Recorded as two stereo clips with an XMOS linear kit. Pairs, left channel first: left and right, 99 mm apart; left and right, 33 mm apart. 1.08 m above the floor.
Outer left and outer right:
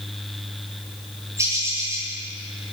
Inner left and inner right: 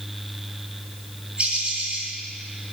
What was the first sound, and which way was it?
A bird, 30° right (ahead or behind).